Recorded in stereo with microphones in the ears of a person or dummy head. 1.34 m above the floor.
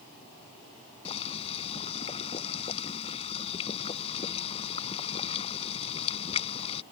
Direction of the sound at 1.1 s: 30° left (ahead or behind).